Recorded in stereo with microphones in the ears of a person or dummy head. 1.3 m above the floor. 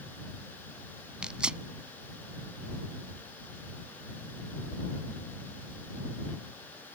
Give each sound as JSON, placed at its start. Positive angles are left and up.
{"t": 1.2, "sound": "tearing paper", "side_deg": -5}